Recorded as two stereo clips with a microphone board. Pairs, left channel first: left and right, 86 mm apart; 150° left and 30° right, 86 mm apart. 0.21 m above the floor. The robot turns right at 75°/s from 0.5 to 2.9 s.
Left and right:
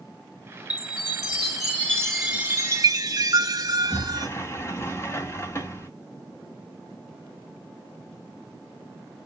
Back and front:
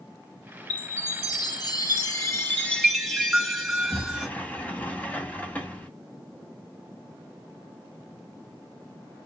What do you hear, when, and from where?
0.7 s a chime: 75° left, 1.8 m; by 4.3 s 120° right, 1.8 m
3.7 s a sliding door: 95° left, 1.5 m